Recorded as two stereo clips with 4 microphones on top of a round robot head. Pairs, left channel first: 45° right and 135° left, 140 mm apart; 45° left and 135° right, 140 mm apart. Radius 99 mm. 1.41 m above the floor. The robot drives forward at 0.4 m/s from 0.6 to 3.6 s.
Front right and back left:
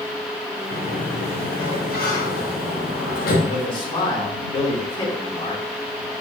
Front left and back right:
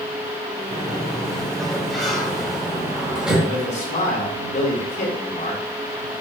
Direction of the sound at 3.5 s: 10° left.